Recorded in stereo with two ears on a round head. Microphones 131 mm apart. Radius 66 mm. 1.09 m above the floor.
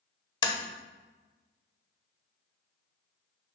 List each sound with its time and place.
0.4 s tapping: 30° left (ahead or behind), 1.0 m